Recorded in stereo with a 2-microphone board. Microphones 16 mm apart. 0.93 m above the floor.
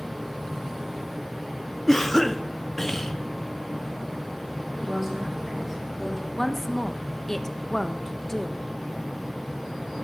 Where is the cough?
20° left (ahead or behind), 0.5 m.